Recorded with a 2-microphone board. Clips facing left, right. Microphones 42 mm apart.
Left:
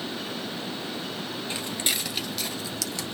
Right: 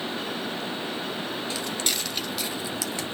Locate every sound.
1.5 s footsteps: 30° left (ahead or behind), 1.3 m; by 3.2 s 35° right (ahead or behind), 1.6 m